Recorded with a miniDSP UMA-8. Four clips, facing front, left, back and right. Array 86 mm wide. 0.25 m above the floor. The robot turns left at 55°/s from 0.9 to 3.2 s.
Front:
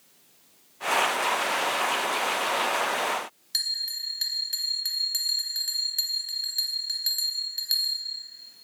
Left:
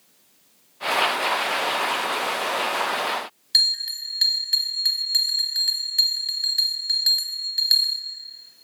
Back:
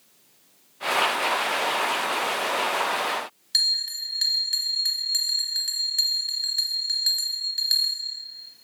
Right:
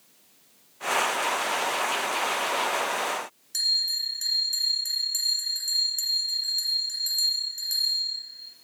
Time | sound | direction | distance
3.5 | a bell | 105° left | 0.7 m